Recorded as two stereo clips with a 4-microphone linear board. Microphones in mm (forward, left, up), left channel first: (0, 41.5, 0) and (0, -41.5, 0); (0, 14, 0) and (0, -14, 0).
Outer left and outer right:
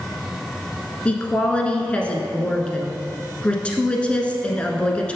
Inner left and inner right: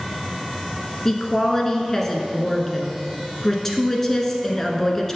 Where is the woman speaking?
15° left (ahead or behind), 1.1 m.